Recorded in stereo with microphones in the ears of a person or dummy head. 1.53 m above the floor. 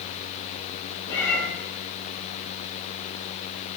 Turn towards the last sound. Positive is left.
turn(degrees=25)  # may be behind; listen again after turning